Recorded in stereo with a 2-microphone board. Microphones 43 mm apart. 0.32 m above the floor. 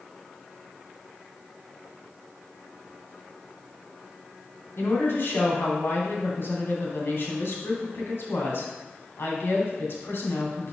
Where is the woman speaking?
65° left (ahead or behind), 2 m.